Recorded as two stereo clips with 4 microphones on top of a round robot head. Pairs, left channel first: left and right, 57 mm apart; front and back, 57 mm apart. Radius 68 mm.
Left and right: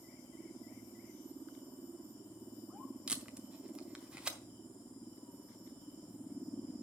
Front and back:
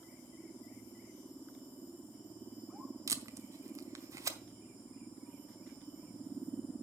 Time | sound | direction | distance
3.1 | tape being pulled | 165° right | 0.9 m